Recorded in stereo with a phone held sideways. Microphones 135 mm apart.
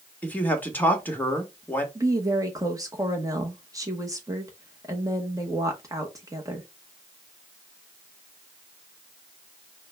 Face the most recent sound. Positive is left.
turn(degrees=-25)  # may be behind; listen again after turning